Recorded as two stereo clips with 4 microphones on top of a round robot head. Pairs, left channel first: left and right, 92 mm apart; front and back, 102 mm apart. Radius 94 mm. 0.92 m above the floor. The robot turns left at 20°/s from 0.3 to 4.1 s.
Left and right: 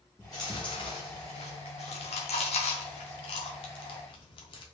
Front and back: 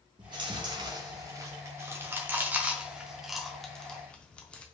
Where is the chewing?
155° left, 0.6 m; by 4.6 s 80° left, 0.6 m.